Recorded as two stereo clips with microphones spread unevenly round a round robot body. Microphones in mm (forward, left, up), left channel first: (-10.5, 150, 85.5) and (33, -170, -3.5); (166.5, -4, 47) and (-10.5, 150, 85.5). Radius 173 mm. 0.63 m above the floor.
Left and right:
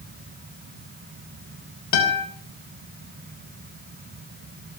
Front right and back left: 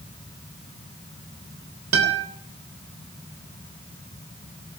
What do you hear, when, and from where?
1.9 s a guitar: 115° left, 3.5 m